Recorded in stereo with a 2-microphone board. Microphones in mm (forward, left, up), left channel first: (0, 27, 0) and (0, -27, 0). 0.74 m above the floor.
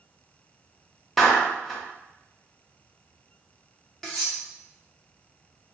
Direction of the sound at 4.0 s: 10° left (ahead or behind).